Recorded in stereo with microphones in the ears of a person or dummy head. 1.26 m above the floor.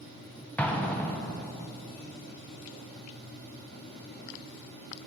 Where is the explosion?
10° left (ahead or behind), 0.6 m.